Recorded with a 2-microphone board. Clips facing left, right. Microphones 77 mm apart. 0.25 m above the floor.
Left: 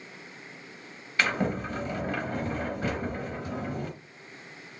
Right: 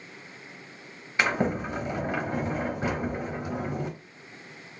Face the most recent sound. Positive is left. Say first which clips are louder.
# right 2 dB
turn(degrees=-20)  # may be behind; listen again after turning